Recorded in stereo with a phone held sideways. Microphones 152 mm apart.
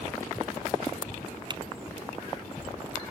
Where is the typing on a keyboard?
30° right (ahead or behind), 0.5 m.